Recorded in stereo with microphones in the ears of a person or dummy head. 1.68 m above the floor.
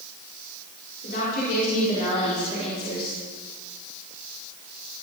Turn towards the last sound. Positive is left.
turn(degrees=30)  # may be behind; listen again after turning